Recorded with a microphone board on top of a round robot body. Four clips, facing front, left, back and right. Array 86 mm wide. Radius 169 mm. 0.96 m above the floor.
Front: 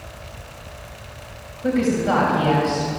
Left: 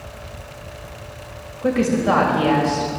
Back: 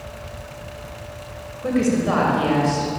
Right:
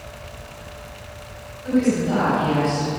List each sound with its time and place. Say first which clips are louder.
1.6 s a woman speaking: left 1 dB, even; 105° left, 6 m